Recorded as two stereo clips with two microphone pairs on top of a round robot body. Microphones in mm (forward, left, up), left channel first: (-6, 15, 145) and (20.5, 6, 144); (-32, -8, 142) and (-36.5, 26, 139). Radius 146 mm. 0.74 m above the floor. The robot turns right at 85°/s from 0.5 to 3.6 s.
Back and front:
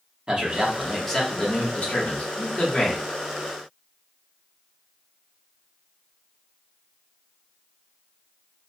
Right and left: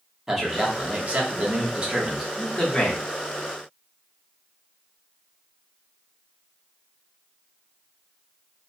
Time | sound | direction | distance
0.3 | a man speaking | 30° left | 1.2 m